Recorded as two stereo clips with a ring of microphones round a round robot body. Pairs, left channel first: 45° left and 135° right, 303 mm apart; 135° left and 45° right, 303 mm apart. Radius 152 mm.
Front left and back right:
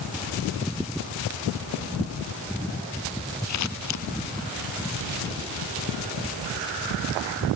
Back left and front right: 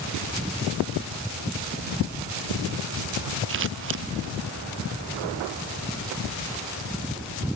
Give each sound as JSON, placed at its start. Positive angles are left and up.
{"t": 3.5, "sound": "scissors", "azimuth_deg": 5}